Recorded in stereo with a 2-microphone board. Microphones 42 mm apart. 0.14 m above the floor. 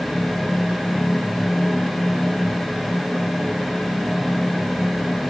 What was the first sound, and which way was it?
Only background noise.